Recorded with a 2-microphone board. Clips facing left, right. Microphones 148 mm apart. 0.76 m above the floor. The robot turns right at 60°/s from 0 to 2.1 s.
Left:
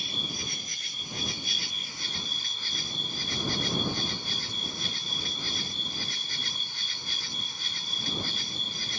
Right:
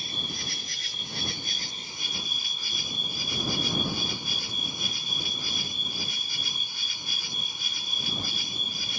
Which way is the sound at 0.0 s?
140° right.